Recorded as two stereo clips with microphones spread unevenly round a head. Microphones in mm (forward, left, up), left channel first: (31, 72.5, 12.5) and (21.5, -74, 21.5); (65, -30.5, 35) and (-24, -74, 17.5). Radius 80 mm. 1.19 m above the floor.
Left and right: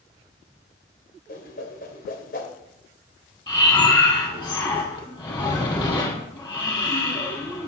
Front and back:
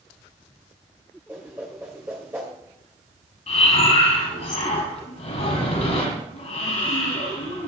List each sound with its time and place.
1.3 s a whoosh: 125° left, 3 m
3.5 s breathing: 25° left, 6.5 m